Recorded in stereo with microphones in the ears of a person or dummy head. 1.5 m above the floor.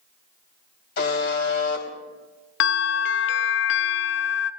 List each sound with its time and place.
1.0 s a buzzer: 60° left (ahead or behind), 3.5 m
2.6 s a bell: 60° left (ahead or behind), 0.6 m